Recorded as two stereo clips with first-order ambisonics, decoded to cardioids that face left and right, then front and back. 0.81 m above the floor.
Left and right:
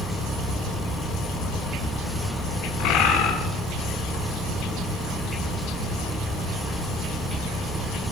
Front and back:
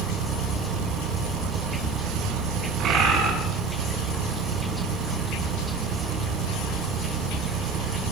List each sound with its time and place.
0.0 s an engine running: 165° right, 2.5 m
2.8 s a bird: 125° left, 7.5 m